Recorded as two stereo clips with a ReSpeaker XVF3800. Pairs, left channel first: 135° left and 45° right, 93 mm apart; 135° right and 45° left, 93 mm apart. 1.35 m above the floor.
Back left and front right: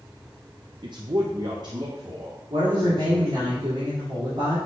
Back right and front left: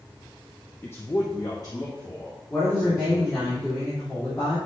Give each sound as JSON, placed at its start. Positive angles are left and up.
{"t": 0.8, "sound": "a man speaking", "azimuth_deg": -70, "distance_m": 0.5}
{"t": 2.5, "sound": "a woman speaking", "azimuth_deg": -70, "distance_m": 3.0}